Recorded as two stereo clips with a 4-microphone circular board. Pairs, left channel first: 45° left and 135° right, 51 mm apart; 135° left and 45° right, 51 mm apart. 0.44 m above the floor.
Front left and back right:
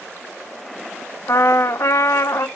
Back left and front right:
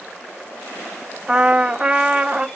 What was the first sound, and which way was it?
A trumpet, 25° left.